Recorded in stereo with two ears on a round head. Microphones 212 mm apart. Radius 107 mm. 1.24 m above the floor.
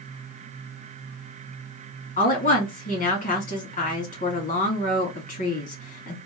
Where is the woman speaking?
35° left (ahead or behind), 1.8 m.